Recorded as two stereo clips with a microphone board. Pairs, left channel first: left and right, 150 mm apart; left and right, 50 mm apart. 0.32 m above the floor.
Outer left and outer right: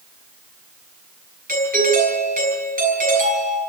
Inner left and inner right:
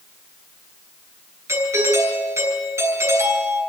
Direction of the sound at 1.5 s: 75° right (ahead or behind).